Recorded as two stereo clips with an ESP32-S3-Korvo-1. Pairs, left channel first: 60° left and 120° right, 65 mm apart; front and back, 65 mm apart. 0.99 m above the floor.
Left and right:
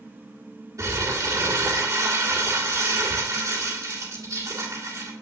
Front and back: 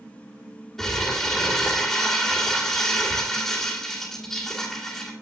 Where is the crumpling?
85° right, 2.0 m.